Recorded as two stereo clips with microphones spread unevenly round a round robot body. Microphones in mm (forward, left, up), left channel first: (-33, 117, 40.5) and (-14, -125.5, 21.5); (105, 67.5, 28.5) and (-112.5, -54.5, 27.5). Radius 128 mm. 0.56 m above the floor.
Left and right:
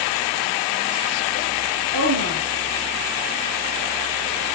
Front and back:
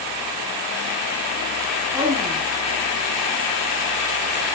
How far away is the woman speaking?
About 4 m.